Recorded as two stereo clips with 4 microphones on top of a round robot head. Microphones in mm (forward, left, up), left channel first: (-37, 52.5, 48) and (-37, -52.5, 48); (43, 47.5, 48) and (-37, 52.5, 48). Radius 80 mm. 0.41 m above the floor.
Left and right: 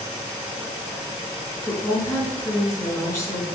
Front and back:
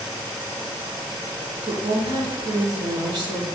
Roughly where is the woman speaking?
Behind left.